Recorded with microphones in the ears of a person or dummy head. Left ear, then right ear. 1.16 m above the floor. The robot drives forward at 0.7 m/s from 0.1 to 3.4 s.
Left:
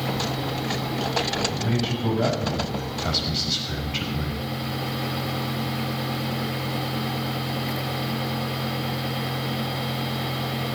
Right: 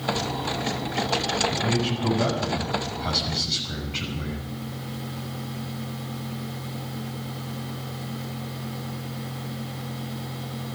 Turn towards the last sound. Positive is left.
turn(degrees=5)  # may be behind; listen again after turning